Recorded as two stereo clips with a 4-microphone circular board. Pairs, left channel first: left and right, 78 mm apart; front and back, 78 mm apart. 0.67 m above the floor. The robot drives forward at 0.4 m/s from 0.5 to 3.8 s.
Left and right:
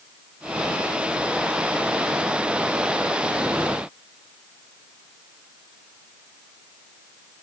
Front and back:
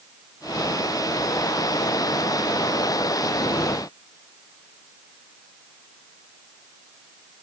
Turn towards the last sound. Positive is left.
No sound to turn to.